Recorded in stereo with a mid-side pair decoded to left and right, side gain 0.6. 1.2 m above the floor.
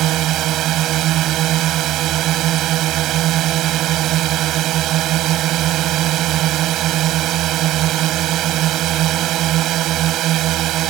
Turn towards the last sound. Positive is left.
turn(degrees=-60)